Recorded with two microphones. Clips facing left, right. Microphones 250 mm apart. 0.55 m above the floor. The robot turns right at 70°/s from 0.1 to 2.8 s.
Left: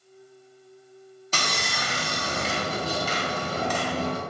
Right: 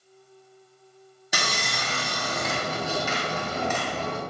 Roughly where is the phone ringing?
I don't hear a phone ringing.